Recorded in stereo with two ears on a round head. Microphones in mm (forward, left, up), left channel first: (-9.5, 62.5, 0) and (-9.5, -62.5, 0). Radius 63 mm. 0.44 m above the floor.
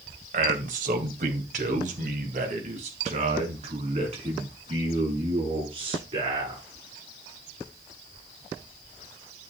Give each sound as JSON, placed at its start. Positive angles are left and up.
{"t": 0.3, "sound": "a man speaking", "side_deg": -60, "distance_m": 2.5}